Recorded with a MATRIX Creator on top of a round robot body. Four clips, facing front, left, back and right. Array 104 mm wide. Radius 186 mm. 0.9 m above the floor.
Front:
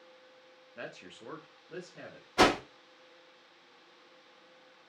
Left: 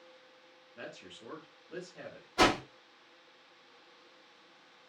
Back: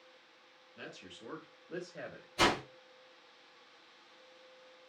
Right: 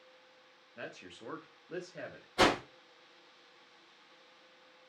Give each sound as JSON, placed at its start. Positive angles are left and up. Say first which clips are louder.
{"t": 0.8, "sound": "a man speaking", "louder": "right 1 dB, front 5 dB", "azimuth_deg": -20, "distance_m": 1.0}
{"t": 2.4, "sound": "a whoosh", "louder": "left 1 dB, front 6 dB", "azimuth_deg": 5, "distance_m": 0.8}